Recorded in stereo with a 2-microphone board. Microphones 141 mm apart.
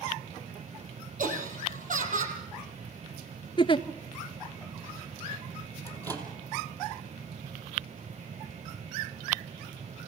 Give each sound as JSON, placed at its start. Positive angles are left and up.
{"t": 1.2, "sound": "laughter", "side_deg": -70, "distance_m": 4.0}
{"t": 3.6, "sound": "a giggle", "side_deg": 40, "distance_m": 0.6}
{"t": 5.9, "sound": "a microwave", "side_deg": -25, "distance_m": 2.5}